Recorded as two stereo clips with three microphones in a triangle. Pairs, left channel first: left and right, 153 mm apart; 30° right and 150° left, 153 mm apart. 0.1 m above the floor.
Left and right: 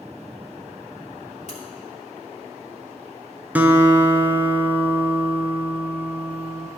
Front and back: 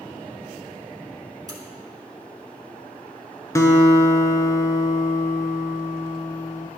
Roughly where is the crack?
Left.